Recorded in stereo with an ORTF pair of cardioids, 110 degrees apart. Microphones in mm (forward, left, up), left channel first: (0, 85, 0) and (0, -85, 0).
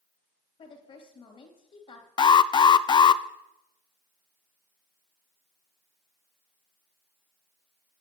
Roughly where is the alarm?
Ahead left.